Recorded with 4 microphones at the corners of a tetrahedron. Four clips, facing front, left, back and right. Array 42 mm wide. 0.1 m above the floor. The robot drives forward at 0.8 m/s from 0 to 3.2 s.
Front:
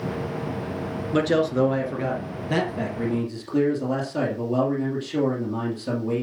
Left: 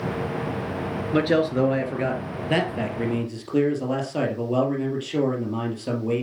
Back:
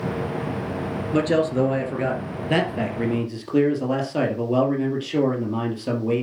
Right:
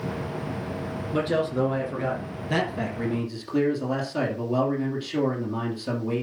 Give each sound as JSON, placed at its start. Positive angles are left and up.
{"t": 1.1, "sound": "a man speaking", "azimuth_deg": 90, "distance_m": 1.7}